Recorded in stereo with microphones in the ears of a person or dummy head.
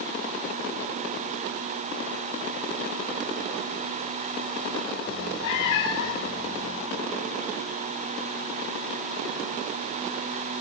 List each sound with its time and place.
5.1 s a cat meowing: 70° left (ahead or behind), 2.5 m